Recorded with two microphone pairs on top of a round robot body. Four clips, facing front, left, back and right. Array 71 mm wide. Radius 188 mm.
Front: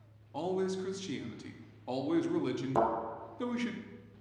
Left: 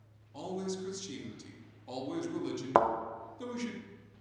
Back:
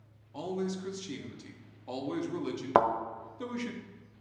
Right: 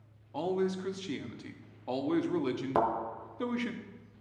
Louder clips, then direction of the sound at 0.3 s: Right 6 dB, front 2 dB; 75° right.